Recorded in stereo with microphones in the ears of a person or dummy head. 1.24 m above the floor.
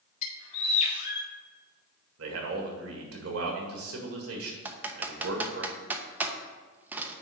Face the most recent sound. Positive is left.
turn(degrees=-10)  # may be behind; listen again after turning